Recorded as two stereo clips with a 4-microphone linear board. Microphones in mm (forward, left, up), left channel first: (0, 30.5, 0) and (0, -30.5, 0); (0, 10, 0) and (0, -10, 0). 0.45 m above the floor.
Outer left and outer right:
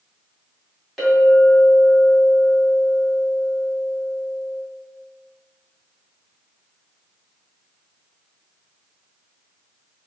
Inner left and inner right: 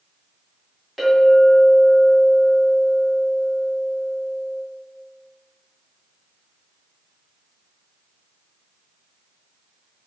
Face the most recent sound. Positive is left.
turn(degrees=0)  # may be behind; listen again after turning